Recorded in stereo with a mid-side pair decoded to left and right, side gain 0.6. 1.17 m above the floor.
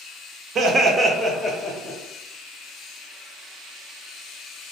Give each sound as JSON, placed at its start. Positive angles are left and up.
{"t": 0.6, "sound": "laughter", "azimuth_deg": -45, "distance_m": 0.7}